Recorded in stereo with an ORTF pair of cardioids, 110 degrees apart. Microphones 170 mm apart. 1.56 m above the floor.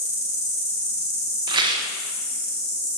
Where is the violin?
No violin in this recording.